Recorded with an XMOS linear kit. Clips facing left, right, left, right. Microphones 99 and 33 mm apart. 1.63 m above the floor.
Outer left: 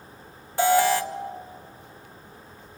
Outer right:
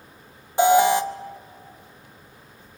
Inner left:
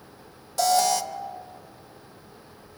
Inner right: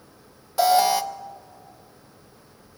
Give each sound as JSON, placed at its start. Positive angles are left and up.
{"t": 0.6, "sound": "an alarm", "side_deg": -20, "distance_m": 1.0}